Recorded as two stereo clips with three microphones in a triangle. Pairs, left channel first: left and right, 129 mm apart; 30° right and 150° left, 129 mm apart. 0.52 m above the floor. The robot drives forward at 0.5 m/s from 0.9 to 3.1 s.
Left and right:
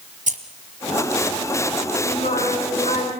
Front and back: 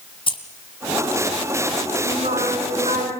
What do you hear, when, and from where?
0.3 s keys jangling: 80° right, 2.5 m
2.0 s singing: 125° left, 4.5 m; by 3.1 s 130° left, 5 m